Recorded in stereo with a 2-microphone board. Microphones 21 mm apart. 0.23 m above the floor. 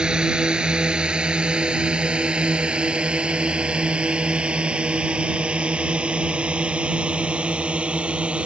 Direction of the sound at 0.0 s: 45° right (ahead or behind).